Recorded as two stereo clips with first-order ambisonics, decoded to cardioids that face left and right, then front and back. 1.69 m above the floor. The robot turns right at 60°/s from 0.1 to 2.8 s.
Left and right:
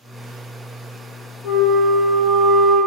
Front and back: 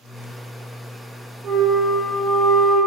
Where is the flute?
115° left, 0.8 m; by 2.8 s 165° right, 0.8 m.